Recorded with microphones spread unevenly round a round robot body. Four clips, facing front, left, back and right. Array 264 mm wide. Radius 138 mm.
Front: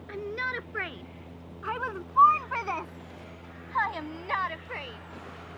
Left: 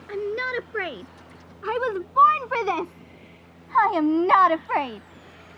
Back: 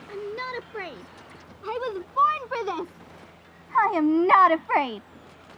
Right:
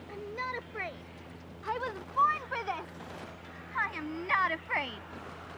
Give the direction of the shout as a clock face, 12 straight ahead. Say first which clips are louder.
Left 11 dB, back 1 dB; 9 o'clock.